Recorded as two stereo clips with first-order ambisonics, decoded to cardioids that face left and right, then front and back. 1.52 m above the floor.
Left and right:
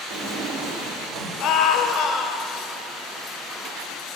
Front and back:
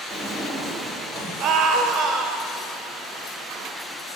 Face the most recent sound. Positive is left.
turn(degrees=130)